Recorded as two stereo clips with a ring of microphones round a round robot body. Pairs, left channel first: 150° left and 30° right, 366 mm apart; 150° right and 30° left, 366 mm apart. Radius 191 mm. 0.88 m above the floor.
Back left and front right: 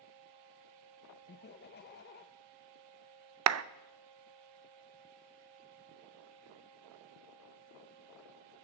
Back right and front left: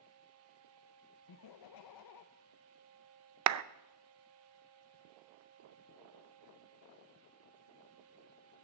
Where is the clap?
5° left, 0.5 m.